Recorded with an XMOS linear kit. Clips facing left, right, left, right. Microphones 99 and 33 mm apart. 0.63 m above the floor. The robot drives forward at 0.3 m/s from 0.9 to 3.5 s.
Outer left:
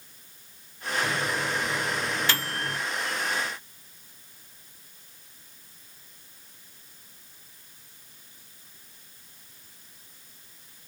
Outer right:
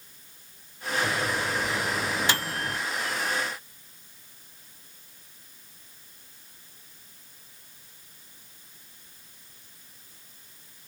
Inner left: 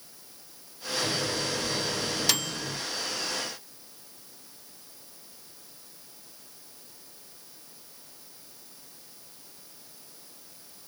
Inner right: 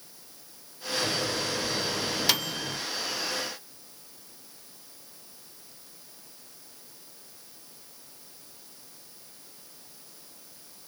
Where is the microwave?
15° right (ahead or behind), 1.1 m; by 2.8 s 20° right (ahead or behind), 0.9 m.